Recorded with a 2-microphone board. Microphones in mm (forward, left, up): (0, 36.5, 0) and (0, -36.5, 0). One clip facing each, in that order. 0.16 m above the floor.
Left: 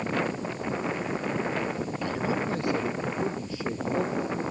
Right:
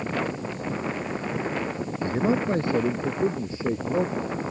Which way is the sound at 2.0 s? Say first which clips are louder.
Right 6 dB; 35° right (ahead or behind).